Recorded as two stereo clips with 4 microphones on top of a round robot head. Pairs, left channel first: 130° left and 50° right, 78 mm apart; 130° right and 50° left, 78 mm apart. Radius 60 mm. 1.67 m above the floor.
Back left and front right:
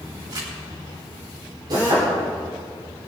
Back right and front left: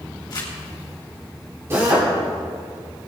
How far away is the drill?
About 4.5 m.